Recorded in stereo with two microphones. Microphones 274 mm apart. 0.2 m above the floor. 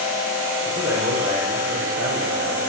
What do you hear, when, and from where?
0.7 s a man speaking: 55° right (ahead or behind), 9.5 m